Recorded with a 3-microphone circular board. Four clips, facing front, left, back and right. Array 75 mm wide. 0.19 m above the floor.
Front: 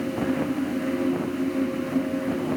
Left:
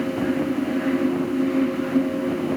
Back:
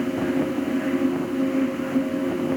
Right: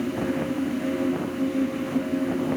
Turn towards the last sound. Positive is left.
No sound to turn to.